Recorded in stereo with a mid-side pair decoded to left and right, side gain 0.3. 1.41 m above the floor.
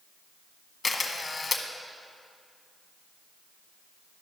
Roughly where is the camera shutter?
Ahead left.